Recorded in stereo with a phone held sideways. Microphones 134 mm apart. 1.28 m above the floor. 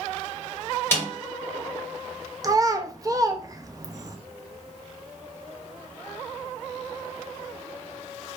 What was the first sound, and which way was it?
A snare drum, 15° left (ahead or behind).